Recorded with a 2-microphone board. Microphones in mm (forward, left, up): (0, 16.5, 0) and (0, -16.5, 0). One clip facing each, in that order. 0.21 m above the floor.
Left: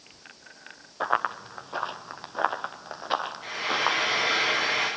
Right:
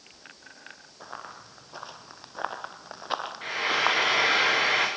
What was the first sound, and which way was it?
Running footsteps, 55° left (ahead or behind).